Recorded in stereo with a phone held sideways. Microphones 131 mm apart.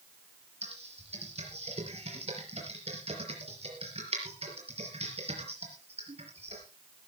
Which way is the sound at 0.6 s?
50° right (ahead or behind).